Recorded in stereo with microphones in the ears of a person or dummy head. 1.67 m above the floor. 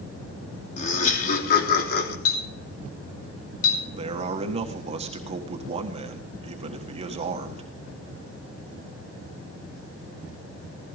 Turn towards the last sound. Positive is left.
turn(degrees=-35)  # may be behind; listen again after turning